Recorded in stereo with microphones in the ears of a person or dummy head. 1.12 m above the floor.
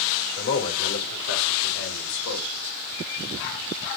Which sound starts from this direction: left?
A man speaking, at 0.4 s.